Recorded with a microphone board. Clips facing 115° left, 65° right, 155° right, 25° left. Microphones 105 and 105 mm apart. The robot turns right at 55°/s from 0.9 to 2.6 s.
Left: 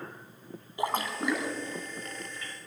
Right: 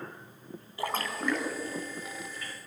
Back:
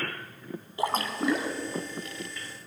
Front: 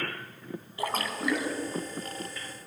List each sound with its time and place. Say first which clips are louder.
0.8 s a splash: left 2 dB, back 3 dB; 160° left, 0.8 m; by 1.6 s 160° right, 0.8 m